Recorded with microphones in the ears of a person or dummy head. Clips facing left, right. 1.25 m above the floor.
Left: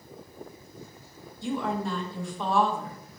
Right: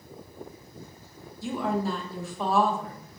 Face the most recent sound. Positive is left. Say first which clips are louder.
# right 1 dB
turn(degrees=-5)  # may be behind; listen again after turning